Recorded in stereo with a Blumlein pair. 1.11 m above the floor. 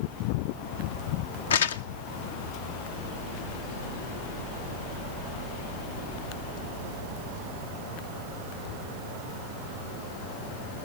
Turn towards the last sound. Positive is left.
turn(degrees=65)